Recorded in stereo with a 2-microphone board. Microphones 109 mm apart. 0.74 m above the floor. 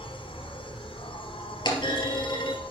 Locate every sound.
0.0 s an insect: 55° left (ahead or behind), 1.8 m
1.6 s a clunk: 45° left (ahead or behind), 2.5 m